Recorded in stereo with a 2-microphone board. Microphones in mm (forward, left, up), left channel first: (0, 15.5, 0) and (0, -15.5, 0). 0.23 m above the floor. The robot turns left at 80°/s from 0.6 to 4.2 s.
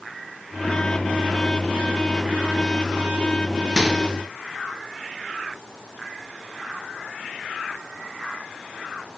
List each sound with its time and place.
3.8 s a microwave: 10° right (ahead or behind), 3.5 m; by 4.0 s 10° left (ahead or behind), 3.5 m